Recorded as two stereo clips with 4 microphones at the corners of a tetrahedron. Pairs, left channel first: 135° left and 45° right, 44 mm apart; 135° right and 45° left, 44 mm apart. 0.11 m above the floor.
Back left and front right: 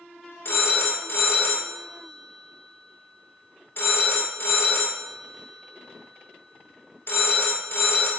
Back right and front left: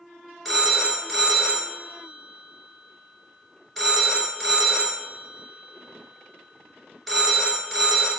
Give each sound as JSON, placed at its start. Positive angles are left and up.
{"t": 0.5, "sound": "a phone ringing", "azimuth_deg": 140, "distance_m": 1.2}